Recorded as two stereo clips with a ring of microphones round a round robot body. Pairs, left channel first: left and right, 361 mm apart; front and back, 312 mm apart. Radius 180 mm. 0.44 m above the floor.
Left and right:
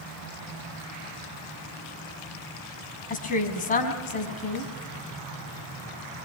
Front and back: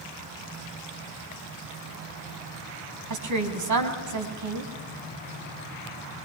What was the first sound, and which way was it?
A woman speaking, 160° left.